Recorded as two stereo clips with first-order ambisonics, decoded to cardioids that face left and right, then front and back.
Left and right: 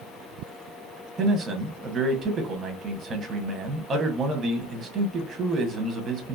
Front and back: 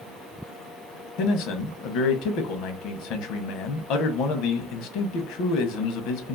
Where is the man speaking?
20° right, 0.7 m.